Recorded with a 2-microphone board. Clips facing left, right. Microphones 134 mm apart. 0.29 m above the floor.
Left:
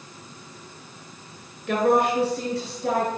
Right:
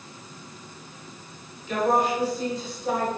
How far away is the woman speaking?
About 4 m.